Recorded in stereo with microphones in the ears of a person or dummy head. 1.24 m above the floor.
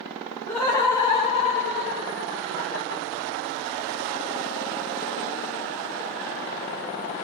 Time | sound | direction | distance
0.5 | laughter | 5° left (ahead or behind) | 0.8 m